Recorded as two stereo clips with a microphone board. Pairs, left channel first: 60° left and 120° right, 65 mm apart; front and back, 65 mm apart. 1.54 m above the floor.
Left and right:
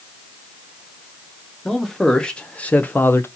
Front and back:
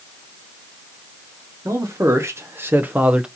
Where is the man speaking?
145° left, 1.3 m; by 3.3 s 105° left, 0.7 m.